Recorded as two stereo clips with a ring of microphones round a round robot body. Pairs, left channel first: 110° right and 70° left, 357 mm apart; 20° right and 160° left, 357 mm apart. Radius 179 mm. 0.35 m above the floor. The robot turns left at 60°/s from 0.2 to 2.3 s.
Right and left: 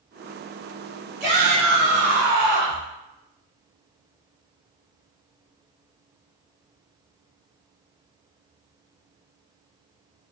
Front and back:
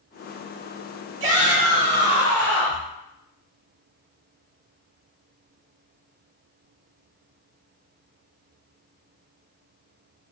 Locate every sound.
1.2 s a shout: 130° left, 1.6 m; by 2.9 s 65° left, 1.6 m